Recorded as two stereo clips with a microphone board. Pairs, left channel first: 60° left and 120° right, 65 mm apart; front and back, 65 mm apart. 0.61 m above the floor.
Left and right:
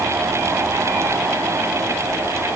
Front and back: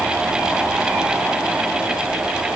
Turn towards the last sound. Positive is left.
No sound to turn to.